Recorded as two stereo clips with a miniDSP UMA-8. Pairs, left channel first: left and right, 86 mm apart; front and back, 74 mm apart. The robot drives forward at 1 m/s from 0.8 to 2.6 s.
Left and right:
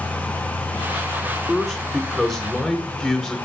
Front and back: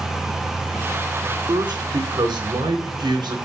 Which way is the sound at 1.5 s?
Straight behind.